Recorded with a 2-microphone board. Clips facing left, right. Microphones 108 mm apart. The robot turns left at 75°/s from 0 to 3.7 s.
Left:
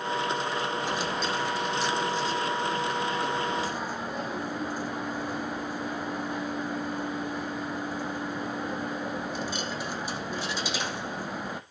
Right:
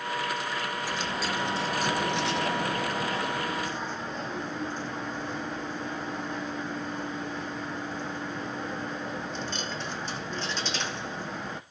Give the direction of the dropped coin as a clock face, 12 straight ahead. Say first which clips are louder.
Left 2 dB; 11 o'clock.